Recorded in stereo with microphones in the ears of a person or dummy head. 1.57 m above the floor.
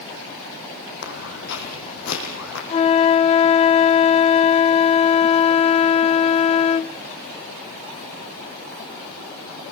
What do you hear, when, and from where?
1.0 s footsteps: 60° left (ahead or behind), 5 m; by 2.6 s 70° left (ahead or behind), 6 m
2.7 s a flute: 30° left (ahead or behind), 0.5 m